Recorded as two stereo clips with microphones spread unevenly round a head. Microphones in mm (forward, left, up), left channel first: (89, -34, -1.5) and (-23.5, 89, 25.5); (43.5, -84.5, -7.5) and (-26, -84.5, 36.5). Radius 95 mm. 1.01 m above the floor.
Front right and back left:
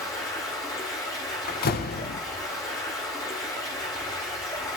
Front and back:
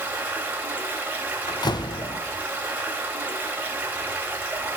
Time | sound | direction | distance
0.0 | running water | 120° right | 2.5 m
1.5 | a door slam | 15° right | 0.9 m